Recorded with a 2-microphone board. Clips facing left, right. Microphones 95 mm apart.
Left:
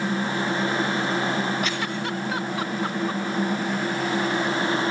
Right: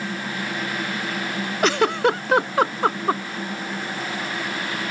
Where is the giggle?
85° right.